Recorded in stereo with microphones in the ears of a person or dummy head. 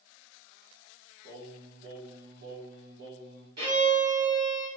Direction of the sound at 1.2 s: 65° right (ahead or behind).